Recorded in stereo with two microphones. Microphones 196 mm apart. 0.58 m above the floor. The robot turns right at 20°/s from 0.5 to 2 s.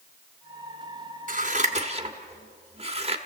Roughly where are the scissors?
Right.